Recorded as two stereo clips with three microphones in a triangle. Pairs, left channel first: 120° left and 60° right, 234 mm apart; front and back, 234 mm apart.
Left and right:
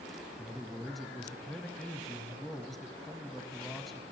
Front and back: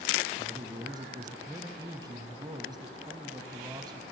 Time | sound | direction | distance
0.4 | a man speaking | 150° right | 1.1 m